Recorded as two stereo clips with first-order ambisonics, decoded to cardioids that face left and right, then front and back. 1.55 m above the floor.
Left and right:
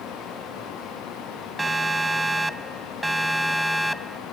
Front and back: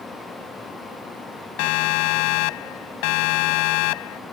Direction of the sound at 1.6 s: 10° right.